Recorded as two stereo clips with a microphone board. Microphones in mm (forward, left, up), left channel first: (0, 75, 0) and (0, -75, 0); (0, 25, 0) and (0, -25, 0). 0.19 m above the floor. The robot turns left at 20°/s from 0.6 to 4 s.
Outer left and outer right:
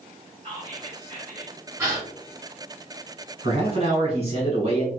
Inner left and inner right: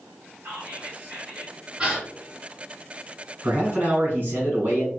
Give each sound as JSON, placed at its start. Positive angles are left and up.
{"t": 0.4, "sound": "whispering", "side_deg": -30, "distance_m": 1.4}
{"t": 1.8, "sound": "a gasp", "side_deg": -20, "distance_m": 1.9}
{"t": 3.4, "sound": "a man speaking", "side_deg": -40, "distance_m": 1.5}